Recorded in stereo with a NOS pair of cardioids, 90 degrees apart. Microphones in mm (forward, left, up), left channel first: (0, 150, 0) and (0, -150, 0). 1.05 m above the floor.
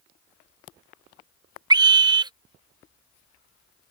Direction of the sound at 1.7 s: 15° right.